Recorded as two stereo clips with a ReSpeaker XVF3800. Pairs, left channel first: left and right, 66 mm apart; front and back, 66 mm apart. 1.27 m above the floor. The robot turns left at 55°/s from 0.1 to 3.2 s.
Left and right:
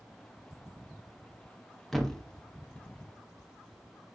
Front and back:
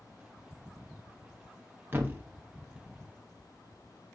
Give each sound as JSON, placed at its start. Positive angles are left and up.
{"t": 1.9, "sound": "a thud", "azimuth_deg": 170, "distance_m": 0.7}